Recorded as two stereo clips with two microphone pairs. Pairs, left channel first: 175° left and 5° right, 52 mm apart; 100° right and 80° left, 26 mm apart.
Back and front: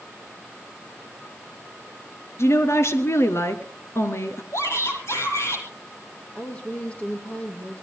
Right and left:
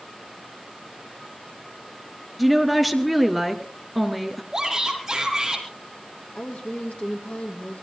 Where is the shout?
155° left, 5.5 m.